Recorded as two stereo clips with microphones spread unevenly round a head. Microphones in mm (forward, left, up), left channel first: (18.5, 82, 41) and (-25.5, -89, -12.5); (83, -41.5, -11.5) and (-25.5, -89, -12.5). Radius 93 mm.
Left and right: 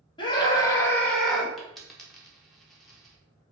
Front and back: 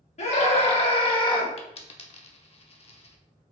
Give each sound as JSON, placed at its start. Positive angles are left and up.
{"t": 0.2, "sound": "a scream", "azimuth_deg": 5, "distance_m": 1.8}
{"t": 1.6, "sound": "a dropped coin", "azimuth_deg": -5, "distance_m": 0.9}